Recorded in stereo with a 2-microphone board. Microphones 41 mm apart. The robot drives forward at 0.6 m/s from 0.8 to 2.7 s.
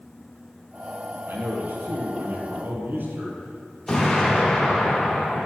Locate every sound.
1.3 s a man speaking: 70° right (ahead or behind), 4 m; by 3.8 s 65° right (ahead or behind), 4 m
3.9 s an explosion: 15° left (ahead or behind), 5 m